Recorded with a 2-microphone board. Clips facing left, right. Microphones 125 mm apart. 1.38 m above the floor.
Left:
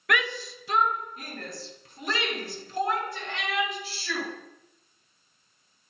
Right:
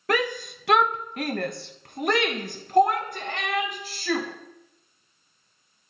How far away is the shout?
About 0.6 m.